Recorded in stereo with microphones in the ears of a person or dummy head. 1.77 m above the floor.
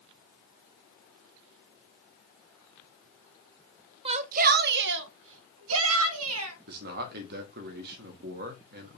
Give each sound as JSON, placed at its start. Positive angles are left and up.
{"t": 4.0, "sound": "a shout", "side_deg": -30, "distance_m": 0.5}
{"t": 6.7, "sound": "a man speaking", "side_deg": -55, "distance_m": 1.3}